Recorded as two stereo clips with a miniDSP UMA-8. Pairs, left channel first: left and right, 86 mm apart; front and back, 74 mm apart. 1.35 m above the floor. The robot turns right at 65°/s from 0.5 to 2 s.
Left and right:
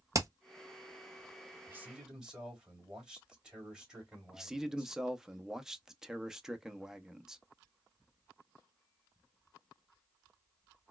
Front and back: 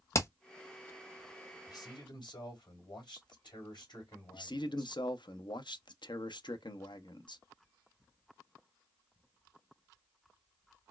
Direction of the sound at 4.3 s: 5° right.